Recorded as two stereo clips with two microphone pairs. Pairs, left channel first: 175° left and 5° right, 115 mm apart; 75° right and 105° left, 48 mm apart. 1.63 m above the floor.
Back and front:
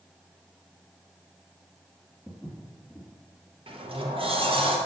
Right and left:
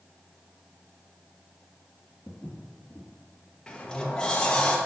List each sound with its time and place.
2.3 s footsteps: 110° right, 1.7 m
3.7 s a sliding door: 5° right, 0.9 m